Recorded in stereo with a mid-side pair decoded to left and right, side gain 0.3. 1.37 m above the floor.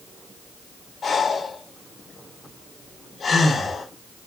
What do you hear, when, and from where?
1.0 s breathing: 60° left, 7 m